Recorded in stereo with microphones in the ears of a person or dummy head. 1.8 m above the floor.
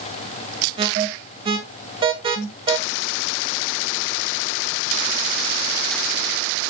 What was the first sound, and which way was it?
An alarm, 25° right (ahead or behind).